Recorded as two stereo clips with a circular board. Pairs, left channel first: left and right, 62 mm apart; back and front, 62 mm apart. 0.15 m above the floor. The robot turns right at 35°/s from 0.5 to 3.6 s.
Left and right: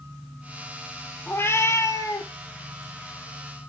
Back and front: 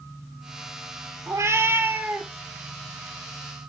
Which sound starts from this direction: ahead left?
A cat meowing, at 1.3 s.